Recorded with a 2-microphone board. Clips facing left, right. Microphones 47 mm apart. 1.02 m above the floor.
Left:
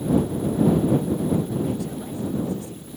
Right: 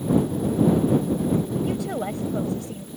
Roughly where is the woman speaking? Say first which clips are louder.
Right 2 dB; right.